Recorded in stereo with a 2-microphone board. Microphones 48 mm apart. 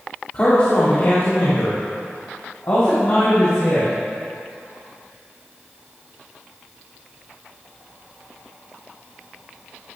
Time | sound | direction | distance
0.3 | a man speaking | 40° left (ahead or behind) | 1.5 m